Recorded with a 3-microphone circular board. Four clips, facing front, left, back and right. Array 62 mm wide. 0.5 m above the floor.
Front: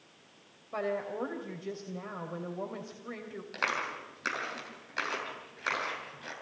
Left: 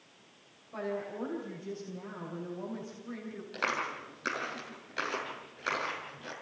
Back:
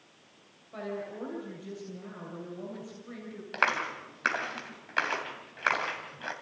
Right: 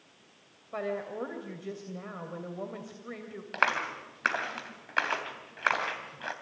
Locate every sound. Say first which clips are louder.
0.7 s a woman speaking: right 2 dB, front 4 dB; 50° right, 3 m
3.5 s a clap: right 5 dB, back 5 dB; 120° right, 3 m